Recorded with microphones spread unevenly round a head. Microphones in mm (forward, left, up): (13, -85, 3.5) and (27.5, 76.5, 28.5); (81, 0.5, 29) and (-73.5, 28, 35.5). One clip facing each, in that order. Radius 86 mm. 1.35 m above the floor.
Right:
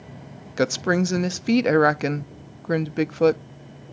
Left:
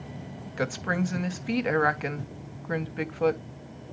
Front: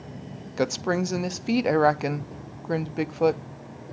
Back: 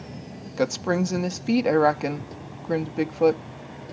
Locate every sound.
0.6 s a woman speaking: 100° right, 0.5 m